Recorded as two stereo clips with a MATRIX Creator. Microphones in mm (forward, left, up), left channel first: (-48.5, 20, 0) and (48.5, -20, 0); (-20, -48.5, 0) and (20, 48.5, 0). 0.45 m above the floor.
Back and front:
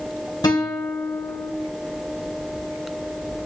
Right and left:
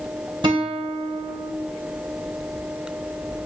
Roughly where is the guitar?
Left.